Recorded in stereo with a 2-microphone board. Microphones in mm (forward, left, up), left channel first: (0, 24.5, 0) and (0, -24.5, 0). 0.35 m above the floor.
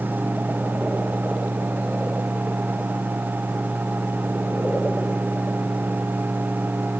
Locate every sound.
Only background noise.